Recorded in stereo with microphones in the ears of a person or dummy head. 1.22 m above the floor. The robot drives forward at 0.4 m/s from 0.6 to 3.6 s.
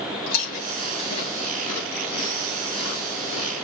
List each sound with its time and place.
0.3 s chewing: 50° left (ahead or behind), 3 m; by 3.5 s 35° left (ahead or behind), 4 m